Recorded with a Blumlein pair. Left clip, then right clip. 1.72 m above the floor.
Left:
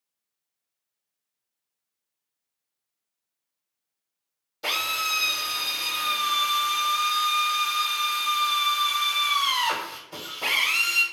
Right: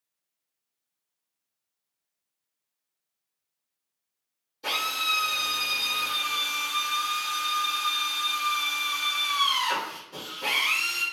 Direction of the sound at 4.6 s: 30° left.